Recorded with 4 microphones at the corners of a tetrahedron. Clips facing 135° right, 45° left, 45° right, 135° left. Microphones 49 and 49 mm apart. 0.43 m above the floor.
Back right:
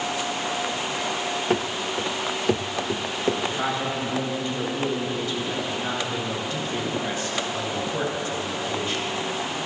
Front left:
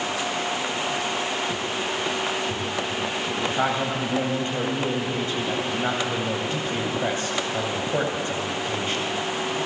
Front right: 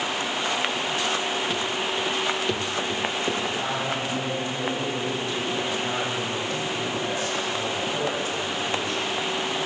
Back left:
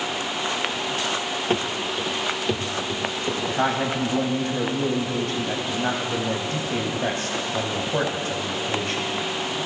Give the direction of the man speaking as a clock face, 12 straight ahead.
9 o'clock.